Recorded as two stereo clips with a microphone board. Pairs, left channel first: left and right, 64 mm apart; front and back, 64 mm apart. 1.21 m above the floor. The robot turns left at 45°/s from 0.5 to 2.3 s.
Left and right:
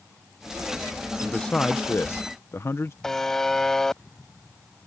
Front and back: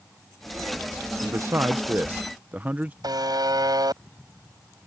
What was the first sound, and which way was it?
A man speaking, 170° left.